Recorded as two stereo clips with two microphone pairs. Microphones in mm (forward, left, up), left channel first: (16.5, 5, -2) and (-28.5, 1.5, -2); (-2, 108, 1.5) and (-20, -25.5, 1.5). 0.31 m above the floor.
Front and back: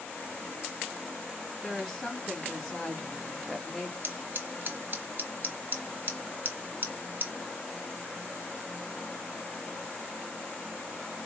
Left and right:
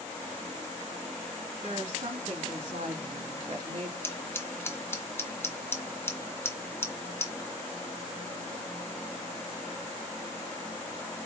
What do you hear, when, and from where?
1.6 s a woman speaking: 90° right, 3 m
4.0 s scissors: 150° left, 0.9 m